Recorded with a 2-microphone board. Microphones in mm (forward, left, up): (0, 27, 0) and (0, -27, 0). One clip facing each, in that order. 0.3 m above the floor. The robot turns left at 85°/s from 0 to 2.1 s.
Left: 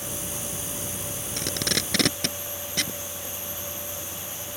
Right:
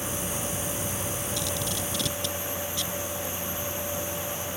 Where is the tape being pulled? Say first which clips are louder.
Left 2 dB; 50° left (ahead or behind); by 3.0 s 65° left (ahead or behind).